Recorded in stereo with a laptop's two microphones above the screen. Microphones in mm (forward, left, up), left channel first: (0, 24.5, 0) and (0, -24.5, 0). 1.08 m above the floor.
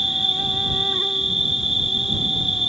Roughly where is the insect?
Centre.